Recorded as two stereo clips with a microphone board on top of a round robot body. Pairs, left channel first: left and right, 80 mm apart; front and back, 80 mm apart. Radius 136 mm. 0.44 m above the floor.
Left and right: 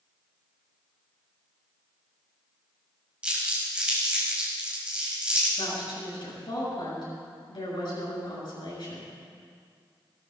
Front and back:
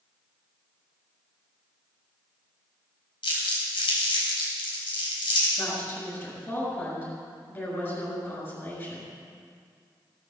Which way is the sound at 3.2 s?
10° right.